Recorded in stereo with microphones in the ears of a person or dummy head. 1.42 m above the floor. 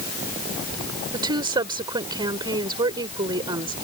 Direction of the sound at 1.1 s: 30° right (ahead or behind).